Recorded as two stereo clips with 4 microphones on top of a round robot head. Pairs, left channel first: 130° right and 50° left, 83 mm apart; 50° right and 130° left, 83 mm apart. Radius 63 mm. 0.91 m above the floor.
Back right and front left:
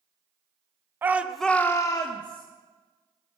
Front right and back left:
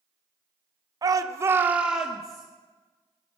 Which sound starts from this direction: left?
A shout, at 1.0 s.